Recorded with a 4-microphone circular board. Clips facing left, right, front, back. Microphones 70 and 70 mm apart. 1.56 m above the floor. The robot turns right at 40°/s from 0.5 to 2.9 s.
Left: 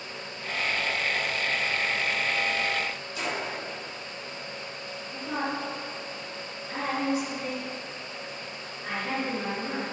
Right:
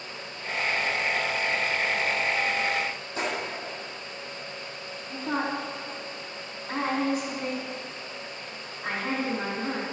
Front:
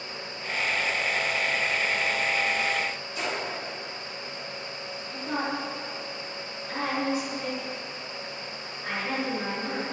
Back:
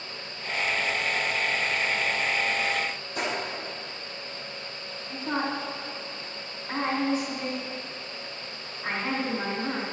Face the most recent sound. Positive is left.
turn(degrees=-125)